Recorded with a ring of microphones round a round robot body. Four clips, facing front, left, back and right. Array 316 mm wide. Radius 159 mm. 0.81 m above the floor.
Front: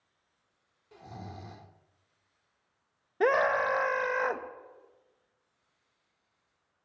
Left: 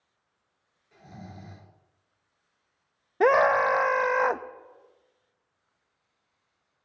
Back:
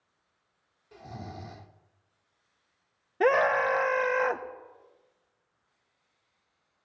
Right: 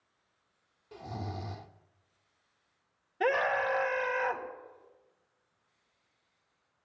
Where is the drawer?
No drawer in this recording.